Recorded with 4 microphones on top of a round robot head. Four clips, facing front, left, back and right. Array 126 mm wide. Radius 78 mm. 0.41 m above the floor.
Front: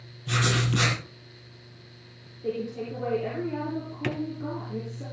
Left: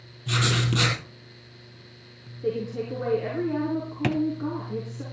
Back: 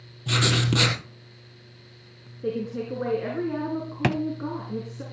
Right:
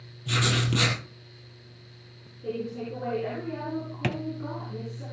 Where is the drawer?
175° left, 0.8 m.